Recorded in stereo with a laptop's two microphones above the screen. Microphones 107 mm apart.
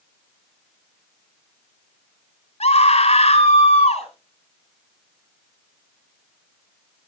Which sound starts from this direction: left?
A scream, at 2.6 s.